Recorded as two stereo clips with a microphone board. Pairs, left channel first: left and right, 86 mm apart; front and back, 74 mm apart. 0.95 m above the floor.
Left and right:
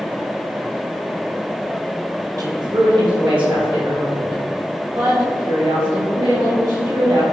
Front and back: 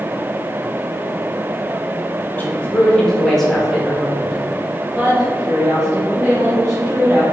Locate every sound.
2.4 s a woman speaking: 60° right, 0.8 m; by 7.2 s 105° right, 3.5 m